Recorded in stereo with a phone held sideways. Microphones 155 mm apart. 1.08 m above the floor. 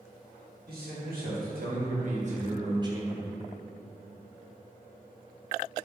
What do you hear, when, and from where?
0.7 s a man speaking: 70° right (ahead or behind), 1.7 m; by 3.3 s 5° right (ahead or behind), 0.6 m